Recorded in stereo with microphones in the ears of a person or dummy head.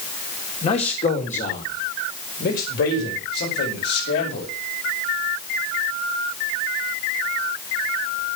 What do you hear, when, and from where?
0.6 s a man speaking: 35° left (ahead or behind), 3.5 m; by 4.5 s 60° left (ahead or behind), 7 m